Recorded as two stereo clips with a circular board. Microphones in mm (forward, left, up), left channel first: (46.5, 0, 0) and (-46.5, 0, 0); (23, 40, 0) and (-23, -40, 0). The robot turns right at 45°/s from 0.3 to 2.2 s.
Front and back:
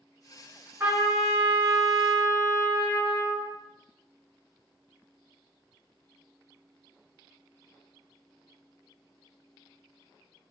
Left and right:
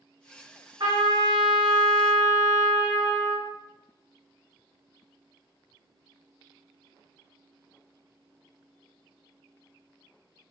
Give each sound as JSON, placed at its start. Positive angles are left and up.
{"t": 0.8, "sound": "a trumpet", "azimuth_deg": -125, "distance_m": 1.9}